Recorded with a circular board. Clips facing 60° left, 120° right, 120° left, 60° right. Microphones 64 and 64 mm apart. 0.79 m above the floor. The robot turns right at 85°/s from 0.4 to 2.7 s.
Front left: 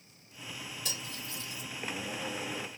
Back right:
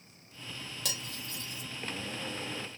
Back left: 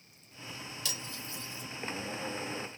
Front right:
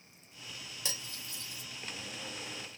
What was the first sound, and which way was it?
Cutlery clinking, 125° right.